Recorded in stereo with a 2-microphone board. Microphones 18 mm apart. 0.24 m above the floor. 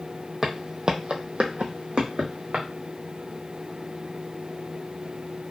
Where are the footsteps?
15° right (ahead or behind), 0.7 m; by 2.7 s 60° right (ahead or behind), 1.3 m.